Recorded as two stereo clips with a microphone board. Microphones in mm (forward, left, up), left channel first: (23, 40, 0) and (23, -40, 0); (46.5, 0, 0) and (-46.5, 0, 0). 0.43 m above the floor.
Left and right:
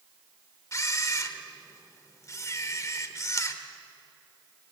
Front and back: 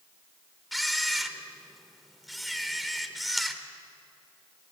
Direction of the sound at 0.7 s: 90° left.